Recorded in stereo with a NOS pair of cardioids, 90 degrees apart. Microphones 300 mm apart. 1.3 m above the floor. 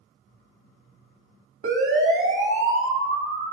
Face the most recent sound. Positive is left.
turn(degrees=-40)